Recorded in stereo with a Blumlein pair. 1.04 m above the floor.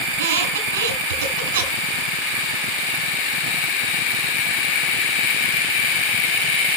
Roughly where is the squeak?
Ahead right.